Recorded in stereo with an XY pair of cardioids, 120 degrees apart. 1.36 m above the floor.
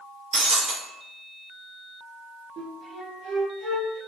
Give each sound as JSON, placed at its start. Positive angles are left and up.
{"t": 0.3, "sound": "breaking glass", "azimuth_deg": -55, "distance_m": 1.3}
{"t": 2.6, "sound": "a flute", "azimuth_deg": -45, "distance_m": 1.1}